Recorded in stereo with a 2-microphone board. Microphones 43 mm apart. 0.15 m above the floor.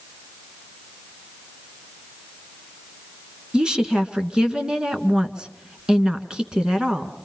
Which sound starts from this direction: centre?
A woman speaking, at 3.5 s.